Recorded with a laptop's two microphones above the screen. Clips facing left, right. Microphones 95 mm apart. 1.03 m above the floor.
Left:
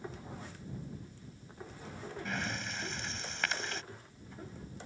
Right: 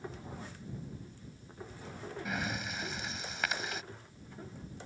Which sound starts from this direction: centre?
Breathing, at 2.2 s.